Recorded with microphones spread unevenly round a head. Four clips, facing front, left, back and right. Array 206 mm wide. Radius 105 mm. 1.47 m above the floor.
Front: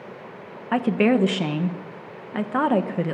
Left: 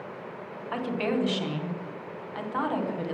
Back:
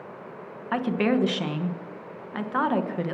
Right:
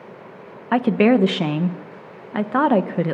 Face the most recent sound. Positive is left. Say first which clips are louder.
# right 13 dB, front 4 dB
turn(degrees=-75)